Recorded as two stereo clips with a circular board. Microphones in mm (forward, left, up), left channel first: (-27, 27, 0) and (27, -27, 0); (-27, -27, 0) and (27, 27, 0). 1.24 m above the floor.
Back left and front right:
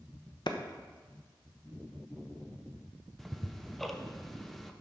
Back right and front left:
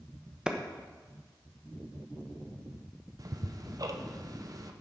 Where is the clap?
125° left, 0.9 m.